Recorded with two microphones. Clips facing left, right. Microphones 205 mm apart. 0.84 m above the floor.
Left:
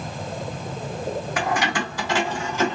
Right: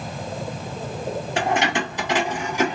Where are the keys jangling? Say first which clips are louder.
Right 4 dB; 30° right (ahead or behind), 1.3 m; by 2.7 s 15° right (ahead or behind), 1.9 m.